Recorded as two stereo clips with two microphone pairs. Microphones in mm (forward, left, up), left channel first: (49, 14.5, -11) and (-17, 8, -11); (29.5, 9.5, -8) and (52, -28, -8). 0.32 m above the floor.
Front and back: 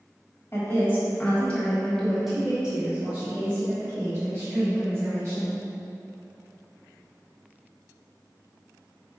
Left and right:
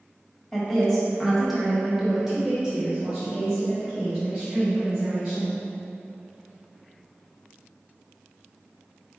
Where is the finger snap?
I don't hear a finger snap.